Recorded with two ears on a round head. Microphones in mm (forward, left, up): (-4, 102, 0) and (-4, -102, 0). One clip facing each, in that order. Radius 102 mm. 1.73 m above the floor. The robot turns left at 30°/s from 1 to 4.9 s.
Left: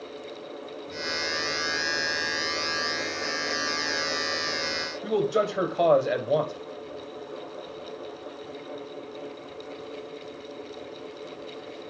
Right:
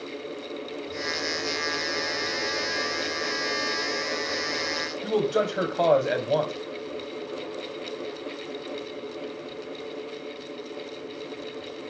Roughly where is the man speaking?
Centre.